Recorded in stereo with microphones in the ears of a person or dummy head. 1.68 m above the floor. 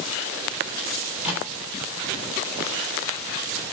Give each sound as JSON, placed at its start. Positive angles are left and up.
{"t": 1.0, "sound": "a microwave", "side_deg": -5, "distance_m": 9.5}